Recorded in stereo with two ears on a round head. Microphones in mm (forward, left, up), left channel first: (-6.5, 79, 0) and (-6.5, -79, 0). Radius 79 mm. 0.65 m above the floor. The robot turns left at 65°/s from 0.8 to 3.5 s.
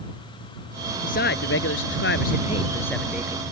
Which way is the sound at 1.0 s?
130° left.